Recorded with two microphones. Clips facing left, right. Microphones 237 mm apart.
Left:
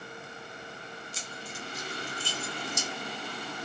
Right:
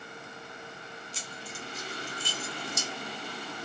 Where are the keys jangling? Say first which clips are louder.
Left 1 dB; 50° left (ahead or behind), 1.5 m; by 2.9 s 15° left (ahead or behind), 1.1 m.